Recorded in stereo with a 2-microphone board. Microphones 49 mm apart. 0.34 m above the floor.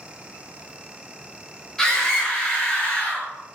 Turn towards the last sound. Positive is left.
turn(degrees=25)  # may be behind; listen again after turning